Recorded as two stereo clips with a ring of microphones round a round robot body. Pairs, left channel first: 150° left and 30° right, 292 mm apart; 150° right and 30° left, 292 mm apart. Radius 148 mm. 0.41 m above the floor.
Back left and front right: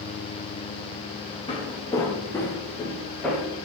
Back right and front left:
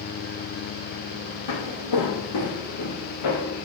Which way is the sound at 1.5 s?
135° right.